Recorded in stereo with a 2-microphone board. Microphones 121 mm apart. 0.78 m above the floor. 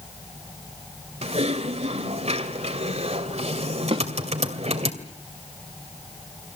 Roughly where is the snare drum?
Right.